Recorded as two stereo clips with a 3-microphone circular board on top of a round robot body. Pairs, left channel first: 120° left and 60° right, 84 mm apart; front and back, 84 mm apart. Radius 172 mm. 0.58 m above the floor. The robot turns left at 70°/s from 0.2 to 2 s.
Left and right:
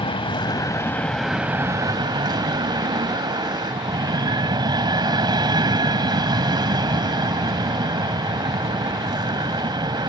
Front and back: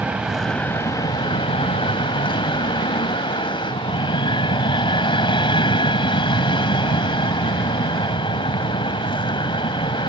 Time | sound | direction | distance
0.0 | an aircraft | 105° left | ?